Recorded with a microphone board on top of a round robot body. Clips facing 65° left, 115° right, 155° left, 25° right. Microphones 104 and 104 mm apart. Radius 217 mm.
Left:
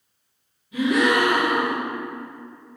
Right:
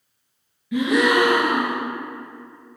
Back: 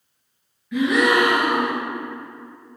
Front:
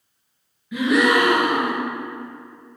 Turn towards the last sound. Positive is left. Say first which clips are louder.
# right 1 dB, even
turn(degrees=-110)